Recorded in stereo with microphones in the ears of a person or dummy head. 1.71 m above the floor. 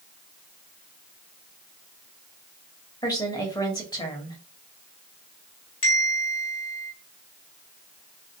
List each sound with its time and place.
3.0 s a woman speaking: 20° left (ahead or behind), 0.8 m
5.8 s a bell: 35° left (ahead or behind), 0.7 m